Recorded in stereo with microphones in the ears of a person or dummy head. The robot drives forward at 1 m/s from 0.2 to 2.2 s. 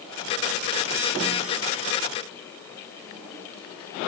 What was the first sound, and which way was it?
Only background noise.